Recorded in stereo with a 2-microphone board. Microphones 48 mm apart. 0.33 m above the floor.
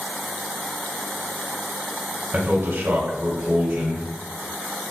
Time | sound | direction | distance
2.3 | a man speaking | 35° right (ahead or behind) | 1.9 m